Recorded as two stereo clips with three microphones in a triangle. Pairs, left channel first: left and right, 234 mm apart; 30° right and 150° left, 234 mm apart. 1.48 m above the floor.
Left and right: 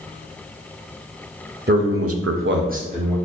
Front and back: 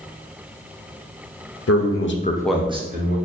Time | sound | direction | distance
1.7 | a man speaking | 40° right | 0.8 m